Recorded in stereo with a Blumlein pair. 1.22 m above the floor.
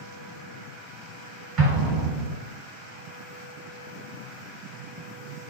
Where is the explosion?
35° right, 1.3 m.